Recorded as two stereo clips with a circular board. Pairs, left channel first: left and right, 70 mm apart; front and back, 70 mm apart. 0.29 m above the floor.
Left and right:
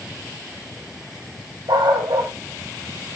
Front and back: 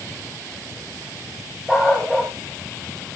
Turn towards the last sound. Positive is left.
turn(degrees=-95)